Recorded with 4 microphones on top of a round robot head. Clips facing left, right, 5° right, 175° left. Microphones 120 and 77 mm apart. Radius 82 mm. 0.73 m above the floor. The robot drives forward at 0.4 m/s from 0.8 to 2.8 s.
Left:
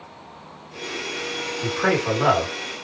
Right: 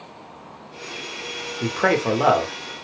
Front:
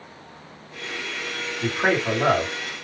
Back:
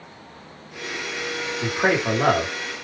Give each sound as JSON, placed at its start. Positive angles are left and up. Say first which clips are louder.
{"t": 1.6, "sound": "a man speaking", "louder": "right 2 dB, back 1 dB", "azimuth_deg": -105, "distance_m": 1.1}